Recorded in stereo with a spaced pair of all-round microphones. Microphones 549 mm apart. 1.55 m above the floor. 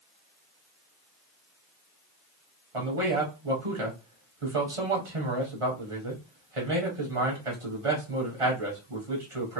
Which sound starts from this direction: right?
A man speaking, at 2.7 s.